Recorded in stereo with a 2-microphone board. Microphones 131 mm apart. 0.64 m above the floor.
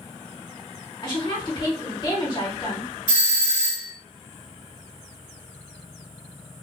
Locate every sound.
1.0 s a woman speaking: 35° left (ahead or behind), 2 m
3.1 s a doorbell: 35° left (ahead or behind), 1.6 m